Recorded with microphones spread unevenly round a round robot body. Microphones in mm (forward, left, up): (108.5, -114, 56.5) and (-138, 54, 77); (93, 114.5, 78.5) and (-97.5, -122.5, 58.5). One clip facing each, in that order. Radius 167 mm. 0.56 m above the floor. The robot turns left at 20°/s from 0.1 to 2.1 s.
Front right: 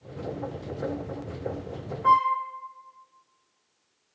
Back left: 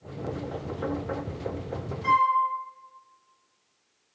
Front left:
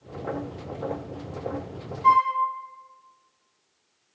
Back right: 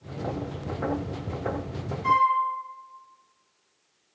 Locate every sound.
2.0 s a flute: 125° left, 1.6 m